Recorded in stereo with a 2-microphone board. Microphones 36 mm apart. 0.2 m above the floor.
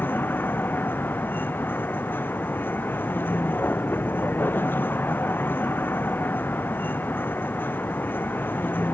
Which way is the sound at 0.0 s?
80° left.